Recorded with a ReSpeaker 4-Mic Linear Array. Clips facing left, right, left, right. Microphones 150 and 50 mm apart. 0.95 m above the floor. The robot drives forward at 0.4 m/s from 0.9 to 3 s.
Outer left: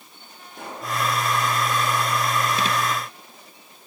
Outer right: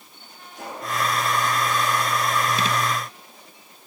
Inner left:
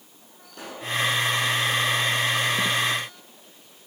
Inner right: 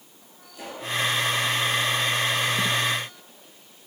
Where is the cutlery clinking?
No cutlery clinking in this recording.